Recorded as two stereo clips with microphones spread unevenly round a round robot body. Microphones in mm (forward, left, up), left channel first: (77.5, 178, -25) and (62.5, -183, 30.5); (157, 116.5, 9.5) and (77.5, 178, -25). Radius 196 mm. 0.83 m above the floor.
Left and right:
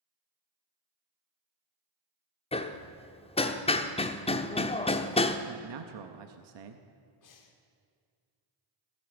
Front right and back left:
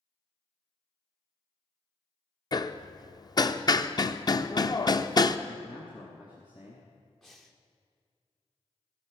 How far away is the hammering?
About 0.8 m.